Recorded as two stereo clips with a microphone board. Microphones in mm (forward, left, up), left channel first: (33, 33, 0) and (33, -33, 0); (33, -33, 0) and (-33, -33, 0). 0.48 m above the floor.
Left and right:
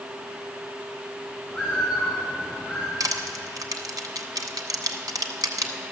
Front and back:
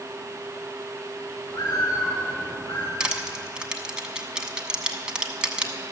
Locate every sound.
1.5 s a bird: 15° left, 3 m
3.0 s crushing: 100° right, 1.0 m